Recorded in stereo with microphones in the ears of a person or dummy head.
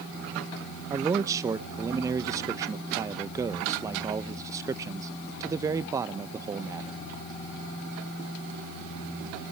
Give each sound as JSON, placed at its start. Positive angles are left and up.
{"t": 0.9, "sound": "a man speaking", "side_deg": -15, "distance_m": 0.8}